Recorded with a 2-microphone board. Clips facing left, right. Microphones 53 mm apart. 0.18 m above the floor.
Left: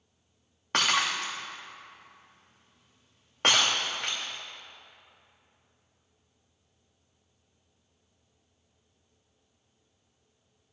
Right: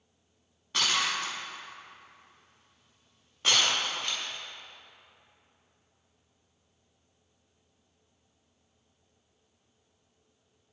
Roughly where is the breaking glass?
Left.